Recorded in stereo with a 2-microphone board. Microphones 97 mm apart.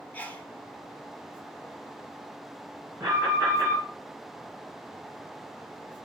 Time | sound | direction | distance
0.1 | a sneeze | 15° left (ahead or behind) | 1.3 m
3.0 | an alarm | 30° right (ahead or behind) | 4 m